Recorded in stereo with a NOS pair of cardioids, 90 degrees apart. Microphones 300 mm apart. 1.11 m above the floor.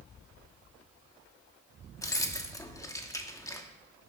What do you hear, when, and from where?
2.0 s keys jangling: 10° left, 1.2 m